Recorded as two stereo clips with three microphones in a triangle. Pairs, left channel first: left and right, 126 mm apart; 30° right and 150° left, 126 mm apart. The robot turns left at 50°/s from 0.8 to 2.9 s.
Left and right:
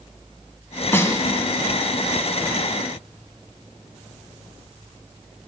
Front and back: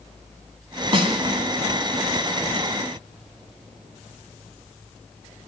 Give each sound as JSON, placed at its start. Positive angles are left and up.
{"t": 0.9, "sound": "a snare drum", "azimuth_deg": 155, "distance_m": 1.3}